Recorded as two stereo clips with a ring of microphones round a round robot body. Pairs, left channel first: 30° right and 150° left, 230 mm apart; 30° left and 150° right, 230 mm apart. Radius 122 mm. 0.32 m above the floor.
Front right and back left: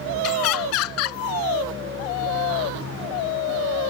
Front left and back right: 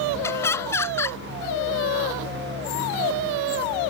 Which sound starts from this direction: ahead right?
Laughter, at 0.2 s.